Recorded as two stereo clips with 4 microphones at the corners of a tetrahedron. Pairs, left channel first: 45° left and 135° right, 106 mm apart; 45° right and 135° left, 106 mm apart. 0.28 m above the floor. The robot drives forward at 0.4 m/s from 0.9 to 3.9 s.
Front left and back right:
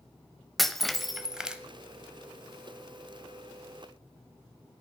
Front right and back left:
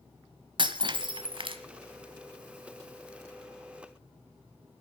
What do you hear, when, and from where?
0.6 s breaking glass: 135° left, 1.0 m; by 1.6 s 145° left, 1.2 m